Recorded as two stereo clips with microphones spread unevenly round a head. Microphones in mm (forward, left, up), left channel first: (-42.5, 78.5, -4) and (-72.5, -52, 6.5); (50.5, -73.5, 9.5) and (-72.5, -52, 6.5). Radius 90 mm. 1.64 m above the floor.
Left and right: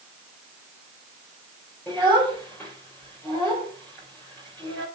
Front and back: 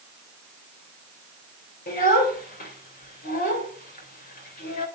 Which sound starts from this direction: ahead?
A child speaking, at 1.9 s.